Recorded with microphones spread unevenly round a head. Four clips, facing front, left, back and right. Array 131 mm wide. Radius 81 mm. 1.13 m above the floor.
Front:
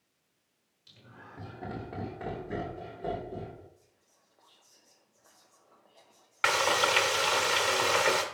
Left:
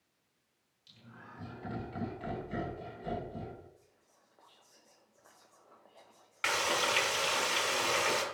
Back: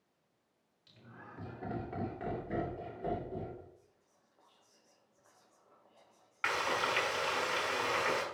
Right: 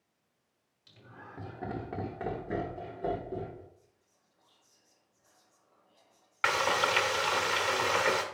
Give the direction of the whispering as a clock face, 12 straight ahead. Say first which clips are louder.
Left 1 dB, front 1 dB; 10 o'clock.